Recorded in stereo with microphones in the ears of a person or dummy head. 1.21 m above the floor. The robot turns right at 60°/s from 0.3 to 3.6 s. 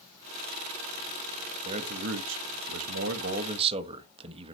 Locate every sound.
1.6 s a man speaking: 145° right, 1.3 m; by 4.5 s 30° right, 1.3 m